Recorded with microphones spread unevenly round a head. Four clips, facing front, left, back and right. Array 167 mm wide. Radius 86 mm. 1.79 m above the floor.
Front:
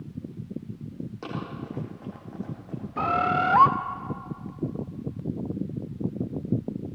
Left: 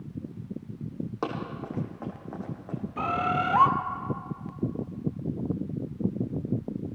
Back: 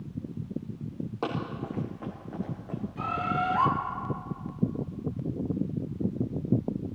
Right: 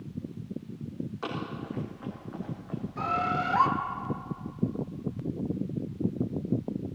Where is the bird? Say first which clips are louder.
Left 2 dB, front 6 dB; 10° left, 1.0 m.